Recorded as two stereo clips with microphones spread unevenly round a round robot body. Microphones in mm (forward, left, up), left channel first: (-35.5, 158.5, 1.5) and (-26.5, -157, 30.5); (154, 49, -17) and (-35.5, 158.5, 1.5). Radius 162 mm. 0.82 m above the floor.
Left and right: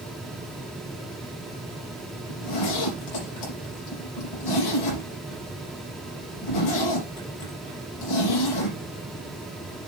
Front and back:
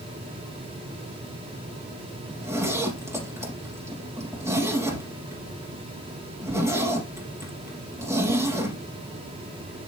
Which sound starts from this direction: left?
A zipper, at 2.3 s.